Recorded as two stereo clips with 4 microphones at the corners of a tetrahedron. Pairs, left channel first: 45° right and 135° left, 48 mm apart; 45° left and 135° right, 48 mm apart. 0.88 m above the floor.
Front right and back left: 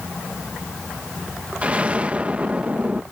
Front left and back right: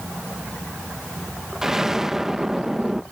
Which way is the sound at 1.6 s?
155° left.